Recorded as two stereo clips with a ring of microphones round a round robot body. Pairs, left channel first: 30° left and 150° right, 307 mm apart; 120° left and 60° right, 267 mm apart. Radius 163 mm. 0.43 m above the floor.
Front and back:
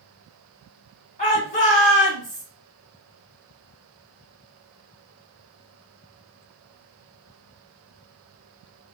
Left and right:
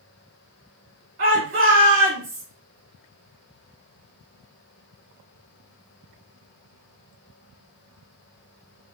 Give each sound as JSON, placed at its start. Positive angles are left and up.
{"t": 1.2, "sound": "a shout", "azimuth_deg": -25, "distance_m": 1.1}